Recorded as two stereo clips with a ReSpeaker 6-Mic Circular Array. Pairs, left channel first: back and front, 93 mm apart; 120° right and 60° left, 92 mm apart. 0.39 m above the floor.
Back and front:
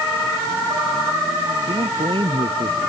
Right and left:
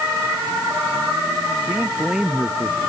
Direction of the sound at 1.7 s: 20° right.